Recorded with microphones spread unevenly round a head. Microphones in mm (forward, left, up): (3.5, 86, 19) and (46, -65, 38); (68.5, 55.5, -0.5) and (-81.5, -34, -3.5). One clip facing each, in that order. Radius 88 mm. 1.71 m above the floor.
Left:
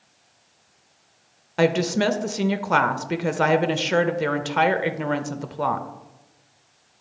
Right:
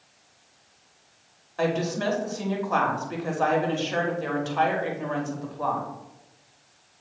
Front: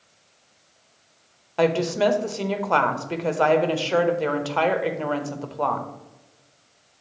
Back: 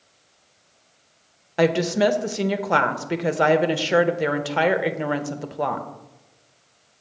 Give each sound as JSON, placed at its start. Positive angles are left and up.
{"t": 1.6, "sound": "a woman speaking", "azimuth_deg": 135, "distance_m": 0.6}